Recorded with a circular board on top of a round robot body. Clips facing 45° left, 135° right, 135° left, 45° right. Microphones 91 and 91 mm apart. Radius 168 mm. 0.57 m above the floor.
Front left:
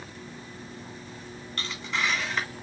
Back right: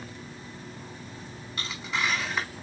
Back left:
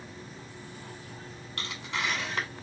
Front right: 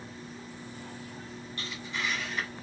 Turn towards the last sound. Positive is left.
turn(degrees=135)